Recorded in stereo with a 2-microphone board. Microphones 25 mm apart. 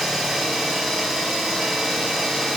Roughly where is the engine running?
Centre.